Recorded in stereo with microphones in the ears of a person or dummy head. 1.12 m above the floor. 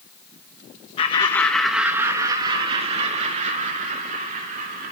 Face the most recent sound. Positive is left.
turn(degrees=-45)  # may be behind; listen again after turning